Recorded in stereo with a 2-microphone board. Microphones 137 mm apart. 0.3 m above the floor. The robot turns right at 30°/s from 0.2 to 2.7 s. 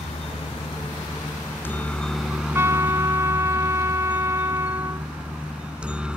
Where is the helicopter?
50° left (ahead or behind); by 6.2 s 5° right (ahead or behind).